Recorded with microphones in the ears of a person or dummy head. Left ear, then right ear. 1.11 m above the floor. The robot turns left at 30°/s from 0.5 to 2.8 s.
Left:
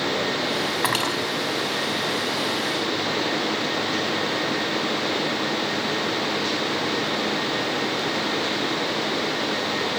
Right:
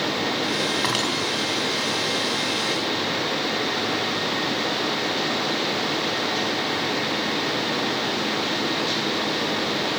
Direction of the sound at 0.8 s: 30° left (ahead or behind).